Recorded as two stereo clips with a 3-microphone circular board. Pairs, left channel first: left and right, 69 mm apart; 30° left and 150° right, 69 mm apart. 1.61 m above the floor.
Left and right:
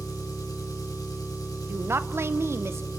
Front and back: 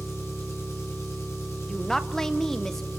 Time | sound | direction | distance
0.0 | an engine running | 75° left | 4.5 m
1.7 | a woman speaking | 50° right | 0.8 m